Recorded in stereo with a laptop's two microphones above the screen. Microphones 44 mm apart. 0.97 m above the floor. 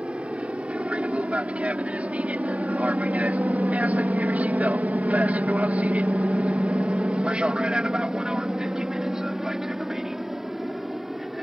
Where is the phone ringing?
I don't hear a phone ringing.